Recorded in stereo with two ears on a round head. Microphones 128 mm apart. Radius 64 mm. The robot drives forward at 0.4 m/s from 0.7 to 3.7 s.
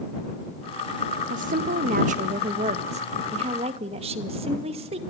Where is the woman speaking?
65° right (ahead or behind), 1.7 m; by 5.0 s 40° right (ahead or behind), 2 m.